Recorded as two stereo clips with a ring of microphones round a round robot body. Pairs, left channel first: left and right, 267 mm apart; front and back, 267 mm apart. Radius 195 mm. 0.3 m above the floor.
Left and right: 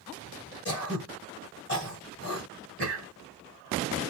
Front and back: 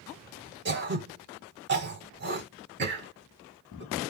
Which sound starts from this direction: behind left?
Throat clearing, at 0.7 s.